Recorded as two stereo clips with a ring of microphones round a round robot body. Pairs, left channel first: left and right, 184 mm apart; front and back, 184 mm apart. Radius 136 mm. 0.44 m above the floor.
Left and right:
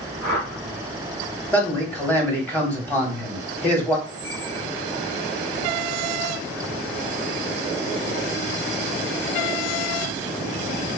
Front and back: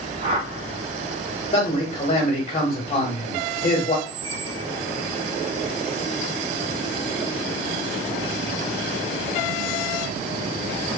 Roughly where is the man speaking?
Ahead.